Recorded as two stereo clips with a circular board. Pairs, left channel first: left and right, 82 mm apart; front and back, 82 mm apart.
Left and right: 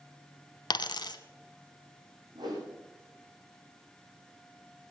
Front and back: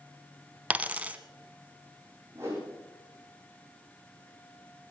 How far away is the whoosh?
About 4 m.